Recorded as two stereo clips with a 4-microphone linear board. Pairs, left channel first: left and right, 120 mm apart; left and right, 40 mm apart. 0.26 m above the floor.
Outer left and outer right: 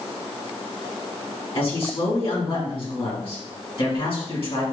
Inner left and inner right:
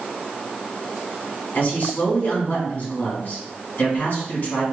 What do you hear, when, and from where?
1.6 s a man speaking: 55° left (ahead or behind), 2 m